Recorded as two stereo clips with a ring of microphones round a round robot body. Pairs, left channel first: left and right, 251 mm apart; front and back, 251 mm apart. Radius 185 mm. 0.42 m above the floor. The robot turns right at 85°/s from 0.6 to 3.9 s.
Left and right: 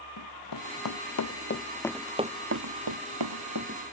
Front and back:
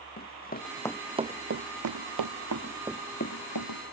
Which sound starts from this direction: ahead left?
Running footsteps, at 0.2 s.